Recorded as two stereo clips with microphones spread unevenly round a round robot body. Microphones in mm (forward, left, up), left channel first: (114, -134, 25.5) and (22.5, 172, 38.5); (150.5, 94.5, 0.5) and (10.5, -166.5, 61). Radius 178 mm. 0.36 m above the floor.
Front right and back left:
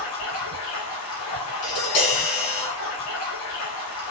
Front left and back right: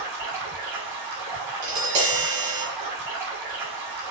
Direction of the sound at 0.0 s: 120° right.